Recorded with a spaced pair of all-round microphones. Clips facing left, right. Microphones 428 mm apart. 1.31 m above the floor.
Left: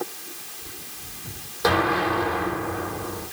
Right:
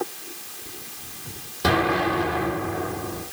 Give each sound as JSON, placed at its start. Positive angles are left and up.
{"t": 1.6, "sound": "an explosion", "side_deg": -45, "distance_m": 7.5}